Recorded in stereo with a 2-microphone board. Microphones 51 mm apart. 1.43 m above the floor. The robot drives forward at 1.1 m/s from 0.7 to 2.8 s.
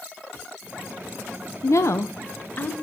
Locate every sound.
1.6 s a woman speaking: 65° left (ahead or behind), 0.7 m; by 2.7 s 30° left (ahead or behind), 1.3 m